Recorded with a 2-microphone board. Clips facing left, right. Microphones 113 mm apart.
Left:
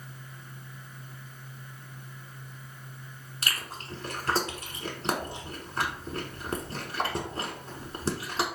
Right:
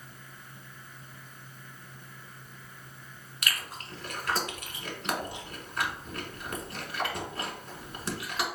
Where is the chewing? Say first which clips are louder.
Even; 30° left (ahead or behind), 0.9 m.